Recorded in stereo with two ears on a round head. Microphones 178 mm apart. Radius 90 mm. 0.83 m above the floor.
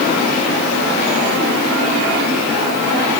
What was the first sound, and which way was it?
Only background noise.